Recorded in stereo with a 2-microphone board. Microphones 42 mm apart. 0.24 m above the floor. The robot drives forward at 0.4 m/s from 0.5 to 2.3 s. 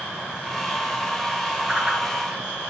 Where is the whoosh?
25° right (ahead or behind), 2.5 m; by 2.0 s 20° right (ahead or behind), 2.5 m.